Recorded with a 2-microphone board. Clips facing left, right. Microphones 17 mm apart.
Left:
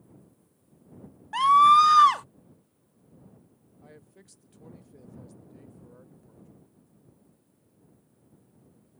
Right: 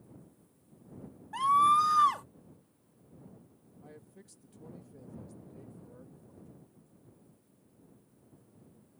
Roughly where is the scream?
Left.